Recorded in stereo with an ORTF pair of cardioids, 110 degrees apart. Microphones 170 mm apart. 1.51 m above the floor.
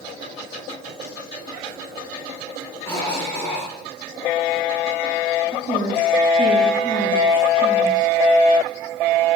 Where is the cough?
15° left, 6.5 m.